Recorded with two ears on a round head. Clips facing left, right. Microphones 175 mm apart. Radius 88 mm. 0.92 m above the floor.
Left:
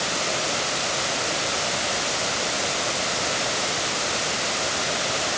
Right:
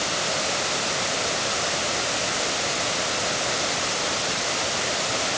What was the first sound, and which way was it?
Only background noise.